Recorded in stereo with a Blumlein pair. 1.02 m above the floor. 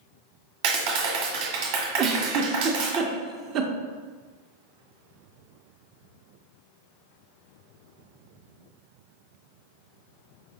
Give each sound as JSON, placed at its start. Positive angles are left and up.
{"t": 0.6, "sound": "a clap", "azimuth_deg": -45, "distance_m": 1.1}
{"t": 2.0, "sound": "a giggle", "azimuth_deg": -30, "distance_m": 0.6}